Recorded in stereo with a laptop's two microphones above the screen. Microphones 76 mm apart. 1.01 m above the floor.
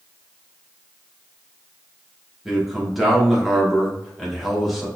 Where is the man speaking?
Centre (ahead or behind), 0.9 m.